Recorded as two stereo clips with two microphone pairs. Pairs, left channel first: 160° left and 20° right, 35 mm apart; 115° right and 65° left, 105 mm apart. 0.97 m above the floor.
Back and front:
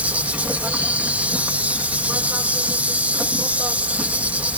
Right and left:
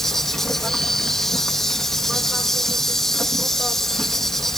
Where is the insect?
30° right.